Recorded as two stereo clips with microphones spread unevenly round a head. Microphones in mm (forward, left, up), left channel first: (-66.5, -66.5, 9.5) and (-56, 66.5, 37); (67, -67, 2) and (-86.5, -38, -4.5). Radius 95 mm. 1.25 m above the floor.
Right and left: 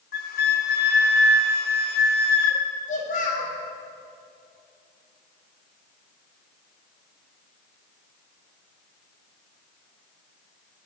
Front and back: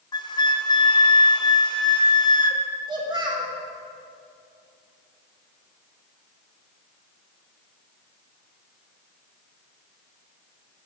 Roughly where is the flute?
Ahead right.